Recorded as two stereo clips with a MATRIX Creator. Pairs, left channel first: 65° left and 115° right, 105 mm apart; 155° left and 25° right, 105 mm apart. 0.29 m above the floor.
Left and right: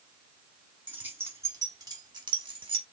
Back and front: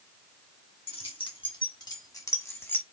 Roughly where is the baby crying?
I don't hear a baby crying.